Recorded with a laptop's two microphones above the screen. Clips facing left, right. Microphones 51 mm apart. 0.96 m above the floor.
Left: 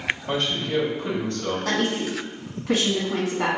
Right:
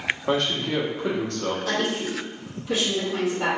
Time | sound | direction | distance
0.3 | a man speaking | 80° right | 1.1 m
1.6 | a woman speaking | 60° left (ahead or behind) | 1.0 m